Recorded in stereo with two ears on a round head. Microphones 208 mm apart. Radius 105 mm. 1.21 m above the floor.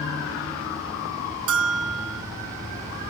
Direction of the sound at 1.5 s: 65° right (ahead or behind).